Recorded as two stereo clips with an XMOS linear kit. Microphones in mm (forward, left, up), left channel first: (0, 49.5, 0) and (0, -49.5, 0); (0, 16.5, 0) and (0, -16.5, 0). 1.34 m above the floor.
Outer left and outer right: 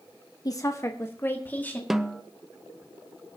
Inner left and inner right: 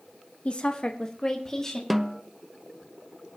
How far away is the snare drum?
About 0.7 m.